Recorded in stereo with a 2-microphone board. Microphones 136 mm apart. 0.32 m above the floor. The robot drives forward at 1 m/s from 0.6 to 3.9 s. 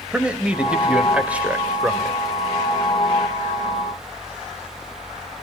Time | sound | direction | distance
0.1 | a man speaking | 10° right (ahead or behind) | 1.4 m